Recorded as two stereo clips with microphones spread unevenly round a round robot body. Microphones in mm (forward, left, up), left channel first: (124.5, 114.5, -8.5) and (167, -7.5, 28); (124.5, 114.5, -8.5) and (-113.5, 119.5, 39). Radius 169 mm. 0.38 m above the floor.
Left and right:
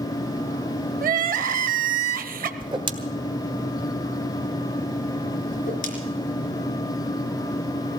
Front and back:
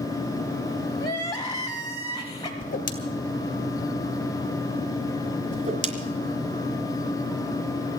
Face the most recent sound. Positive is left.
turn(degrees=120)